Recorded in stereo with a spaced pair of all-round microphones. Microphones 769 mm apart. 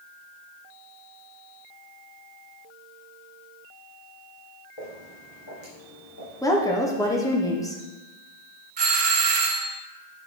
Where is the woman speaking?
5° left (ahead or behind), 0.8 m.